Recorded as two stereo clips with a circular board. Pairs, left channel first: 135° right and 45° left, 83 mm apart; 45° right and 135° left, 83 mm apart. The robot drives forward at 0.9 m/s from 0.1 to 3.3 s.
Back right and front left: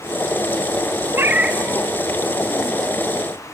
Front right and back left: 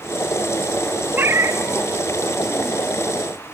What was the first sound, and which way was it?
A cat meowing, 80° left.